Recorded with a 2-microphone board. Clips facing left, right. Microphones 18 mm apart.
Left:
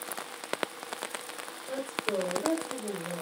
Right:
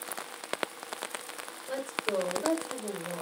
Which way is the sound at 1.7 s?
45° right (ahead or behind).